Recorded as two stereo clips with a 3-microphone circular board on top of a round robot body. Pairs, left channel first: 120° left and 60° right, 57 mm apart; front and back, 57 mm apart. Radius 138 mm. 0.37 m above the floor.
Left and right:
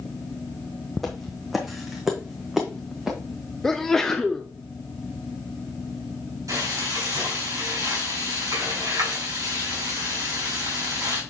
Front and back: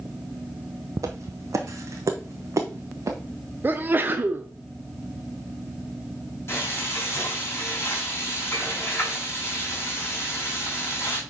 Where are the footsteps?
155° right, 0.8 m; by 3.2 s 140° right, 1.8 m.